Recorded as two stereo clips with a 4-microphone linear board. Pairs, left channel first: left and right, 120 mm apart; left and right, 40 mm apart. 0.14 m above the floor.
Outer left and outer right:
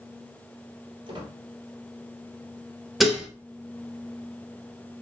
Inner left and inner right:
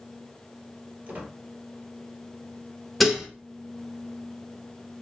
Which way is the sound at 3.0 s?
5° right (ahead or behind).